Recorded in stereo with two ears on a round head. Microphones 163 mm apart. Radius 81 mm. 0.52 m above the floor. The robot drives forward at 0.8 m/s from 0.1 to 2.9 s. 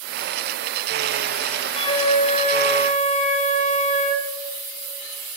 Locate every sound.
1.8 s a flute: 25° left (ahead or behind), 1.7 m; by 4.3 s 40° left (ahead or behind), 1.2 m